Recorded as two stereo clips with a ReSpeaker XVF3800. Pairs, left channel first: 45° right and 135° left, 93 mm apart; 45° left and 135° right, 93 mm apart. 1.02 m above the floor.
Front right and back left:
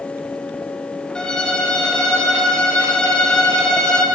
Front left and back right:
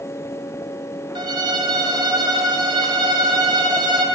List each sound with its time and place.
1.1 s a violin: 125° right, 1.2 m